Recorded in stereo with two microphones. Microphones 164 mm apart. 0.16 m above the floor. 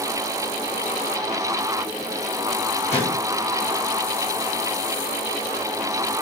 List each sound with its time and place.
2.9 s a gunshot: 40° left (ahead or behind), 7.5 m